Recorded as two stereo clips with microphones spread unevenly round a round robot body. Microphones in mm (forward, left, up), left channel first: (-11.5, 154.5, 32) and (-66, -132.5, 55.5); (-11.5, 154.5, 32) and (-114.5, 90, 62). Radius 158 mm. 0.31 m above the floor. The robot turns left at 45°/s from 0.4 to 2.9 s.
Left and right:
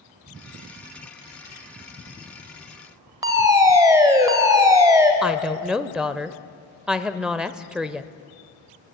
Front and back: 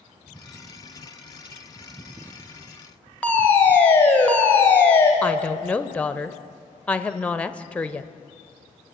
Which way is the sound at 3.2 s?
20° right.